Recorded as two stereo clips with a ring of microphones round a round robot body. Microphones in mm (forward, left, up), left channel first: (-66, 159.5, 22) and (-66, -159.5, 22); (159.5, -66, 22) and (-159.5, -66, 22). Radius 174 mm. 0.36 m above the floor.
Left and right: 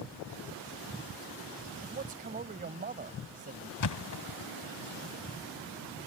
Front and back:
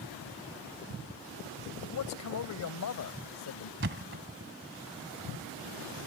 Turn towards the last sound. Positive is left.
turn(degrees=120)